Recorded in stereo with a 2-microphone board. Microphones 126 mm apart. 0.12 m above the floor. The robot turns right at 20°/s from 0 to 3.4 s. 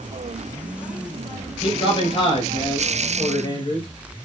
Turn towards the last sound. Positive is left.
turn(degrees=105)